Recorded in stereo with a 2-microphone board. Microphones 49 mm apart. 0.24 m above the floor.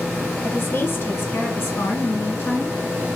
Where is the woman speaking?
45° left (ahead or behind), 1.9 m; by 2.8 s 50° left (ahead or behind), 3.5 m.